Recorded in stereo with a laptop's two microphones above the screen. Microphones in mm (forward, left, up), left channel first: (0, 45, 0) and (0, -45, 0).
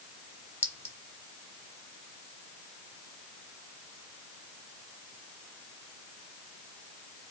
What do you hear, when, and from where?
0.6 s a clink: 25° left (ahead or behind), 1.1 m